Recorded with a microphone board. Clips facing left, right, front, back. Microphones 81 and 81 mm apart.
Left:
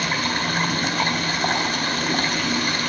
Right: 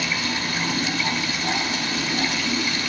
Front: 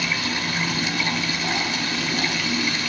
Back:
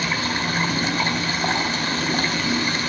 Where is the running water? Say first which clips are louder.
Left 3 dB, back 2 dB; 130° left, 2 m.